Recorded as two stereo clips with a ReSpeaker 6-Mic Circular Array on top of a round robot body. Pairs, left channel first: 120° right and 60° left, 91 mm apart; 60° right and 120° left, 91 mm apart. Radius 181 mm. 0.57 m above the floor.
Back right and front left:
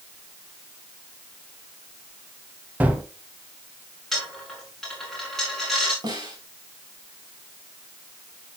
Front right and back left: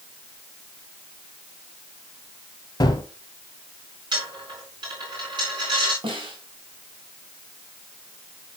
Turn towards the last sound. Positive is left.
turn(degrees=100)